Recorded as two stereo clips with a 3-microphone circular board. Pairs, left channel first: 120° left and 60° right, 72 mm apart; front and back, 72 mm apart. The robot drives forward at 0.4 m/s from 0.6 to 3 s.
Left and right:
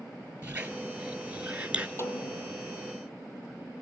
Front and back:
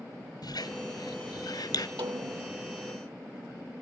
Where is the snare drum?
175° left, 2.5 m.